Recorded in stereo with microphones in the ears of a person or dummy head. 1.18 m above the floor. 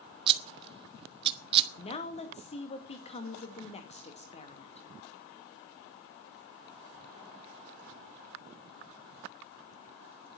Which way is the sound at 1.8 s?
30° left (ahead or behind).